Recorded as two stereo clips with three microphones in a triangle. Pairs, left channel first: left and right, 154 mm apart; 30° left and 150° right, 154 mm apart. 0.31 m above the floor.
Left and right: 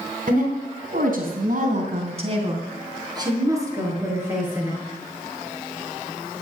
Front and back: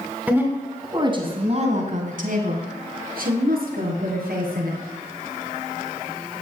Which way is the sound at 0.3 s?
70° right.